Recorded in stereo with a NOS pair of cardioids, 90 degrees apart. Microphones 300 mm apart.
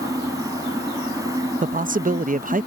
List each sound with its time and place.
0.0 s a fan: 10° right
1.6 s a man speaking: 25° right